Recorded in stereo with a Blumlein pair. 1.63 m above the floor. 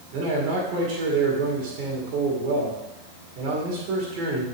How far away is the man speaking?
About 2.5 m.